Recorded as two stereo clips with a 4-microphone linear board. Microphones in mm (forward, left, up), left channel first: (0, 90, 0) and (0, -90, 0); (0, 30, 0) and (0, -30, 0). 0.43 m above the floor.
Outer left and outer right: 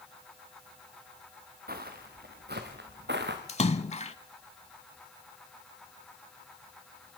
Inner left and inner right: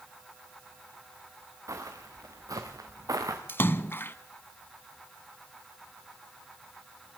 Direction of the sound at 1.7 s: 60° right (ahead or behind).